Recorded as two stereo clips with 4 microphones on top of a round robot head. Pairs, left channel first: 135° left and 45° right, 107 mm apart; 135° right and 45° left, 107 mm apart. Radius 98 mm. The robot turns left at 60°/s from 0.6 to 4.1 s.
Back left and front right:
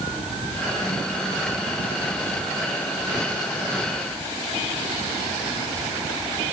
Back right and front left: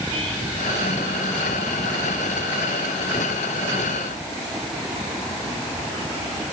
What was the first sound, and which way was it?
Only background noise.